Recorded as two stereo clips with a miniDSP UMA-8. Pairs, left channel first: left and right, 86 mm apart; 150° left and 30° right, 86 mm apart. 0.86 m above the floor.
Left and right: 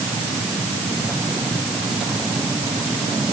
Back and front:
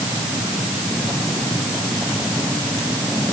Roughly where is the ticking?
I don't hear ticking.